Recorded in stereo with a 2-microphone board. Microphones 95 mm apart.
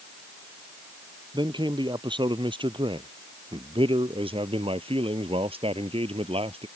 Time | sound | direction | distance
1.3 | a man speaking | 50° right (ahead or behind) | ?